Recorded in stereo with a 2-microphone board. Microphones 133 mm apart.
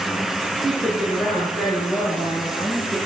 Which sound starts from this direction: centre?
A woman speaking, at 0.6 s.